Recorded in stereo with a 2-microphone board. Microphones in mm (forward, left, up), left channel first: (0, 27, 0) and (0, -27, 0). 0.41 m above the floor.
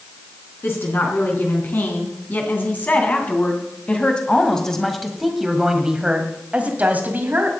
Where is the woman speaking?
50° left (ahead or behind), 3.5 m; by 7.5 s 40° right (ahead or behind), 2 m.